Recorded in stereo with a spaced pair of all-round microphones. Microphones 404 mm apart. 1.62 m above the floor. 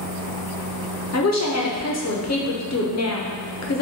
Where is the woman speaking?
40° left (ahead or behind), 0.5 m.